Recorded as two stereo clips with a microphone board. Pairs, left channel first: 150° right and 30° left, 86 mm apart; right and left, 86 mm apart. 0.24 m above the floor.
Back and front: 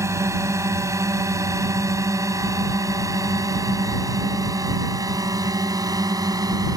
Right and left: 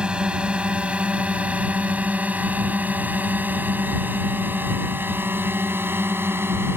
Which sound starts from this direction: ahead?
A drone, at 0.0 s.